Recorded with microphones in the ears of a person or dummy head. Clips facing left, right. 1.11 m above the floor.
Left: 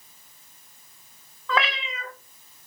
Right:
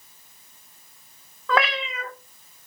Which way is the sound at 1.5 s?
45° right (ahead or behind).